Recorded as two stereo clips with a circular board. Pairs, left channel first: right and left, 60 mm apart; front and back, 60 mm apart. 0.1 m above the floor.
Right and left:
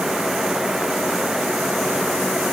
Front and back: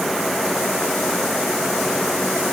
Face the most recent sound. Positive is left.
No sound to turn to.